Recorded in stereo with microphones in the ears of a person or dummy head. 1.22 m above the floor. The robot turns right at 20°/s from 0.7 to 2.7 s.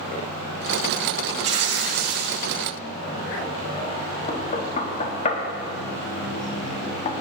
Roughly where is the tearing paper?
Right.